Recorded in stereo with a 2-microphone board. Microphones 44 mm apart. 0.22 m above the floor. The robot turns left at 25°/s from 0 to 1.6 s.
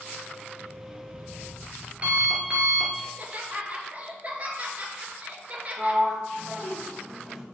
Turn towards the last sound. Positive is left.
turn(degrees=-5)  # may be behind; listen again after turning